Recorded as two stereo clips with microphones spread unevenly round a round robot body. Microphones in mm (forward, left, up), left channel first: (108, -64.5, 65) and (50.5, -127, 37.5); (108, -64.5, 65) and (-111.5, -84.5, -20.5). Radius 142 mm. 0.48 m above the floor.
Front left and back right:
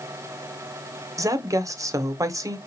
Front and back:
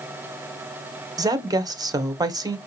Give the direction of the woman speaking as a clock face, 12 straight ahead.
4 o'clock.